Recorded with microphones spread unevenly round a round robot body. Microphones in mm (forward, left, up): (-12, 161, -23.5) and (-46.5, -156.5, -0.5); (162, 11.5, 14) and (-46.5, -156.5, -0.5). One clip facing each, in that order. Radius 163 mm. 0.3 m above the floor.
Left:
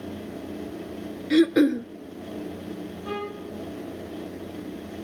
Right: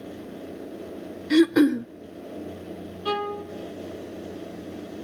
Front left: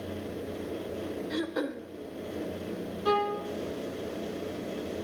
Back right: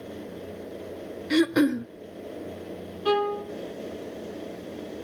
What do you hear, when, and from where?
1.3 s throat clearing: 175° right, 0.7 m
3.0 s a violin: 100° right, 4.5 m